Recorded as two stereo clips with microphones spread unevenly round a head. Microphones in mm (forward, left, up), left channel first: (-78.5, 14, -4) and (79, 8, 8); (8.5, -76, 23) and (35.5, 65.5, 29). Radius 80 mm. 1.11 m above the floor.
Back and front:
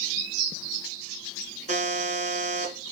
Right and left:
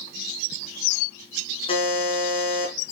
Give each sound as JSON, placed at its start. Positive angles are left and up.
{"t": 1.7, "sound": "a buzzer", "azimuth_deg": -45, "distance_m": 3.5}